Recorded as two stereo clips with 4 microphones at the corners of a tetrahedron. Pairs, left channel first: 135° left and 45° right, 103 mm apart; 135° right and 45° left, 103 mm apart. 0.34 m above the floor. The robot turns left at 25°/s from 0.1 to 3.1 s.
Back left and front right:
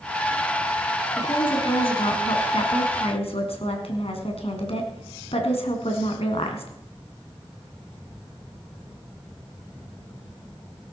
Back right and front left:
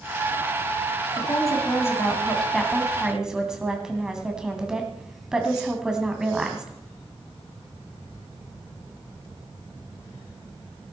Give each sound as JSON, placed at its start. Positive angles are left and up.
{"t": 1.2, "sound": "a woman speaking", "azimuth_deg": 175, "distance_m": 2.5}